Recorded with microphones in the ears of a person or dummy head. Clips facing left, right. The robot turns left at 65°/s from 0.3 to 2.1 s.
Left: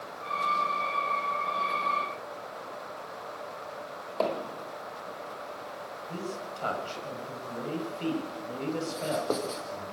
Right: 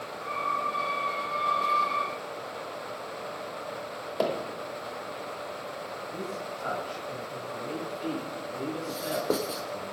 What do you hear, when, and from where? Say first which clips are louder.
4.2 s hammering: right 1 dB; 10° right (ahead or behind), 2 m
6.1 s a man speaking: left 1 dB; 70° left (ahead or behind), 6.5 m
8.9 s writing: right 1 dB; 15° right (ahead or behind), 3 m